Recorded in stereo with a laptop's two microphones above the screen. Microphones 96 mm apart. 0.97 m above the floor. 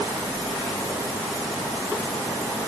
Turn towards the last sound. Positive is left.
No sound to turn to.